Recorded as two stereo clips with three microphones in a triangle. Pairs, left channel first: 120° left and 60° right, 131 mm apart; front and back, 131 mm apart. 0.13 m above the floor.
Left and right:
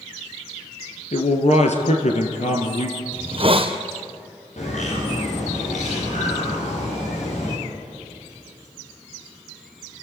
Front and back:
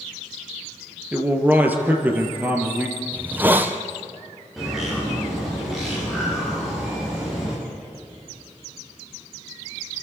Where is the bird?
90° left, 8.5 m.